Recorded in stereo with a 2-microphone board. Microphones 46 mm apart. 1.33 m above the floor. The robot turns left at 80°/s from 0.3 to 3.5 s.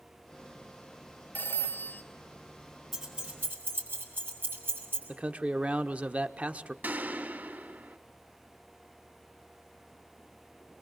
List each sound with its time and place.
1.4 s a phone ringing: 135° left, 1.7 m; by 2.0 s 80° left, 1.7 m
2.9 s keys jangling: centre (ahead or behind), 7 m; by 5.0 s 45° right (ahead or behind), 7 m
5.1 s a man speaking: 30° right (ahead or behind), 1.1 m
6.8 s a gunshot: 45° right (ahead or behind), 2.5 m